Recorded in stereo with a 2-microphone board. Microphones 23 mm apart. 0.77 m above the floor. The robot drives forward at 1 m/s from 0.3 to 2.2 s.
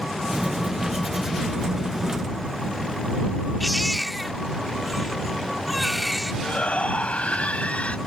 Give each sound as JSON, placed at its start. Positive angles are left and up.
{"t": 3.6, "sound": "a baby crying", "side_deg": -5}
{"t": 6.4, "sound": "a shout", "side_deg": 80}